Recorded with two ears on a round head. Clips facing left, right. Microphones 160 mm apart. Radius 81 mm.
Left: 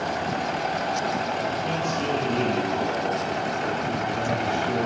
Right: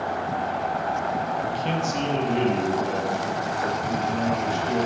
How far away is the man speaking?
About 0.5 m.